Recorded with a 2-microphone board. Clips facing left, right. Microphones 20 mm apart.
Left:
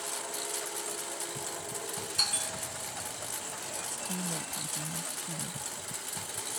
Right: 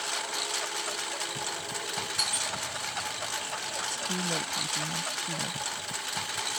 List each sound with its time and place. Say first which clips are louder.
0.0 s a lawn mower: right 6 dB; 35° right (ahead or behind)
2.2 s a bell: left 1 dB; 5° left (ahead or behind)
3.8 s a woman speaking: right 6 dB; 45° right (ahead or behind)